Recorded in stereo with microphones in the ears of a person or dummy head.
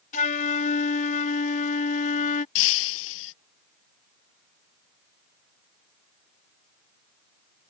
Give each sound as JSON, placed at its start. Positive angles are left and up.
{"t": 0.1, "sound": "a flute", "side_deg": 30}
{"t": 2.5, "sound": "breaking glass", "side_deg": 75}